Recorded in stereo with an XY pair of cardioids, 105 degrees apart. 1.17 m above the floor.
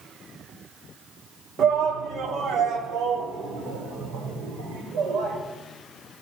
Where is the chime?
No chime in this recording.